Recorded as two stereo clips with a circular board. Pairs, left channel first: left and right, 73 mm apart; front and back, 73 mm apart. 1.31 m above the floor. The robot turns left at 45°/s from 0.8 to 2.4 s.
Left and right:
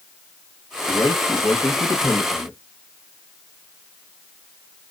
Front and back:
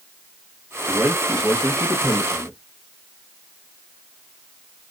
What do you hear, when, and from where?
0.9 s a man speaking: 110° left, 1.3 m; by 2.6 s 40° left, 1.3 m